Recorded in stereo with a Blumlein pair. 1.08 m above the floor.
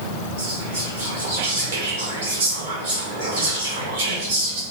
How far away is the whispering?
About 1.5 m.